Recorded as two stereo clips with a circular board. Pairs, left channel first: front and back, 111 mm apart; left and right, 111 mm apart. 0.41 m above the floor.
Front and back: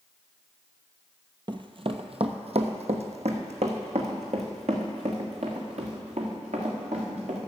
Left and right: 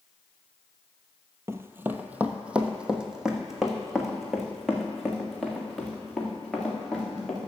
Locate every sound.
1.5 s running footsteps: 150° right, 0.6 m; by 7.4 s straight behind, 3.5 m